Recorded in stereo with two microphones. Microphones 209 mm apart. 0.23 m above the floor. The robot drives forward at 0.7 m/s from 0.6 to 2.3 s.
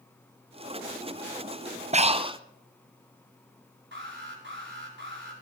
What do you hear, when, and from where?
1.9 s breathing: 35° right (ahead or behind), 0.5 m; by 2.4 s 25° right (ahead or behind), 0.7 m
3.9 s an alarm: 60° right (ahead or behind), 4.5 m